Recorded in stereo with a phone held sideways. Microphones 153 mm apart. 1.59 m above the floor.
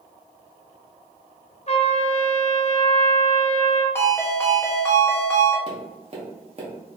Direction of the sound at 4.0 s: 15° left (ahead or behind).